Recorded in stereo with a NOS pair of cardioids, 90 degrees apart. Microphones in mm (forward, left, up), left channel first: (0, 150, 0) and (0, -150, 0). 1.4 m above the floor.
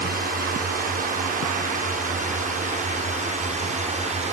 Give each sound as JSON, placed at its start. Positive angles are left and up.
{"t": 0.0, "sound": "a drone", "azimuth_deg": -30}